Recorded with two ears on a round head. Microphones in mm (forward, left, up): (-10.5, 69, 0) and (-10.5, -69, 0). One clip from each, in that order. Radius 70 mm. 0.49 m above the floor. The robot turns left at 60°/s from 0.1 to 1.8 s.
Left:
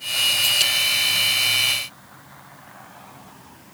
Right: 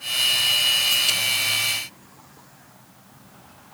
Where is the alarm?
I don't hear an alarm.